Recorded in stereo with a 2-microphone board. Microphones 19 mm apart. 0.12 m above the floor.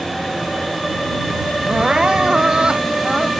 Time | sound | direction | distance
1.7 | crying | 45° right (ahead or behind) | ?